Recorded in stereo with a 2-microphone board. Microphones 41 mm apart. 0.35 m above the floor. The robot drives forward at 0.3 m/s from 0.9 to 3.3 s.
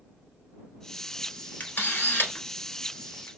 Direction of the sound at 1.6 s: 45° left (ahead or behind).